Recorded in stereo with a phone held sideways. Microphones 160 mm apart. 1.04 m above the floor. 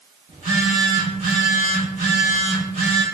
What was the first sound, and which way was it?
A phone buzzing, 45° right (ahead or behind).